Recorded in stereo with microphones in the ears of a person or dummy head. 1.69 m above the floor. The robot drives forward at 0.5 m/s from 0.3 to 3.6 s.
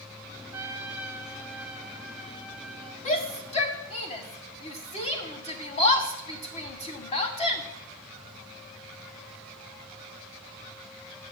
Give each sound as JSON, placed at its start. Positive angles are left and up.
{"t": 0.5, "sound": "a trumpet", "side_deg": -10, "distance_m": 0.6}
{"t": 3.0, "sound": "a shout", "side_deg": 35, "distance_m": 1.3}